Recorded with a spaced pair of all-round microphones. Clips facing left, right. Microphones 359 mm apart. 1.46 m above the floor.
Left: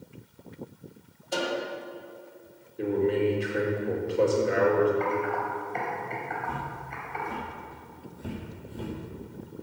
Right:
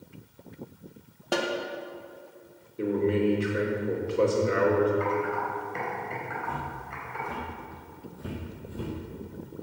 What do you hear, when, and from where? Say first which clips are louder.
1.3 s a snare drum: right 2 dB; 75° right (ahead or behind), 1.5 m
2.8 s a man speaking: even; 10° right (ahead or behind), 3 m
5.0 s typing on a keyboard: even; 15° right (ahead or behind), 4 m
6.4 s footsteps: even; 15° left (ahead or behind), 5.5 m; by 8.9 s 20° right (ahead or behind), 3 m